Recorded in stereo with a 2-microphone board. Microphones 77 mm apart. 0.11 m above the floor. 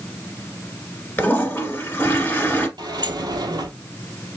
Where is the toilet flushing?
25° left (ahead or behind), 1.3 m.